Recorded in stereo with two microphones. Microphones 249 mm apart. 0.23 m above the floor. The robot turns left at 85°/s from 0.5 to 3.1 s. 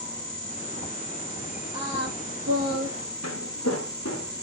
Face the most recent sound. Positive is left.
turn(degrees=85)